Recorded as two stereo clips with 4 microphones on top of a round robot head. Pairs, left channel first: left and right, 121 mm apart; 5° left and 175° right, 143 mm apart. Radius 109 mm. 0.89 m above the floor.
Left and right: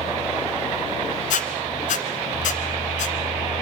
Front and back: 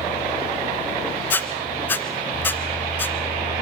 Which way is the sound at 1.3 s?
80° left.